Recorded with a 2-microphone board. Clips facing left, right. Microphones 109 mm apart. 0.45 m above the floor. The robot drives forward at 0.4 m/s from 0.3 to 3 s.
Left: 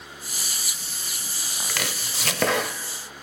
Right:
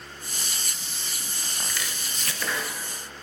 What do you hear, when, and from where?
1.7 s chopping: 65° left (ahead or behind), 0.6 m; by 2.8 s 70° left (ahead or behind), 0.6 m